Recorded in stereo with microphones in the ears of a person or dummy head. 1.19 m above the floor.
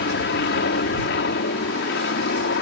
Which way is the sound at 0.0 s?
60° left (ahead or behind).